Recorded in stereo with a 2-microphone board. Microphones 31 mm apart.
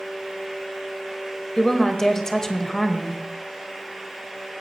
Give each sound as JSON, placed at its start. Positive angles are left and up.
{"t": 1.6, "sound": "a woman speaking", "side_deg": 15, "distance_m": 1.3}